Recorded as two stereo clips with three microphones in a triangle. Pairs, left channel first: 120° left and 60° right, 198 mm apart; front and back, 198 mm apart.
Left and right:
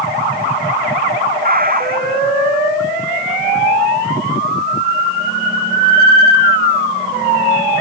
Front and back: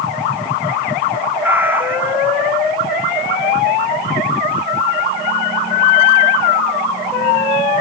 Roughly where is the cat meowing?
Right.